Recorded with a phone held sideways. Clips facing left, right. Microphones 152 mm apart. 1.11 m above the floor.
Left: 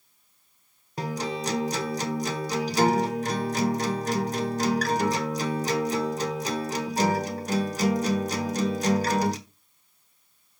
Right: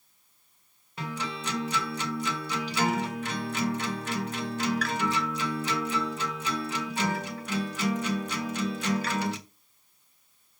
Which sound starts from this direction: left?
A guitar, at 1.0 s.